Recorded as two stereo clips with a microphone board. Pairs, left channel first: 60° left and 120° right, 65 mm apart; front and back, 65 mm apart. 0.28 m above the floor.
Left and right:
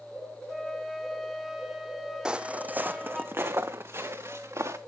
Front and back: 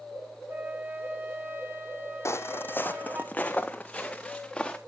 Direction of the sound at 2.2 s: 45° right.